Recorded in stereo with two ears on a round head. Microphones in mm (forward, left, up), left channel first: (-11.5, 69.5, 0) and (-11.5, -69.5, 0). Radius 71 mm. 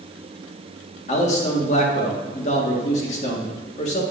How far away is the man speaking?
About 2.0 m.